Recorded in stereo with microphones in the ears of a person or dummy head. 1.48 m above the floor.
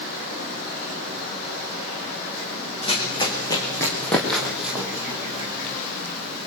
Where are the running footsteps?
35° left (ahead or behind), 5 m; by 5.7 s 20° right (ahead or behind), 5 m.